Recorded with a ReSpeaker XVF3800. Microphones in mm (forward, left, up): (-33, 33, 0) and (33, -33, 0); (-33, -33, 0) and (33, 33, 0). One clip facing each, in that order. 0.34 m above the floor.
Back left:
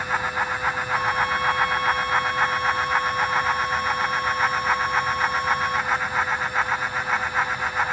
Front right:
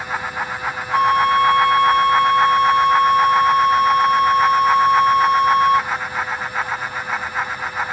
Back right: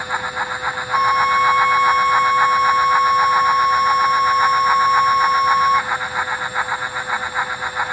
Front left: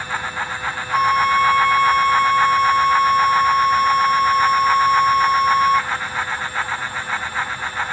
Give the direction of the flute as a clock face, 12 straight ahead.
2 o'clock.